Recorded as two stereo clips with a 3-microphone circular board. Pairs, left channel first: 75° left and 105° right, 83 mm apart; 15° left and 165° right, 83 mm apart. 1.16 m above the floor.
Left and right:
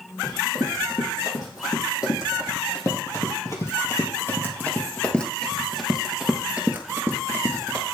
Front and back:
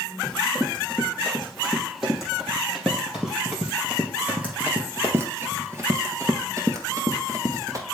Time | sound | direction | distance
0.2 | running footsteps | 105° left | 3.5 m